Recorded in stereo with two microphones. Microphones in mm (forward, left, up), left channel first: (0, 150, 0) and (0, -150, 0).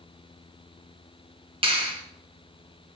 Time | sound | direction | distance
1.6 | a clap | 20° right (ahead or behind) | 3.5 m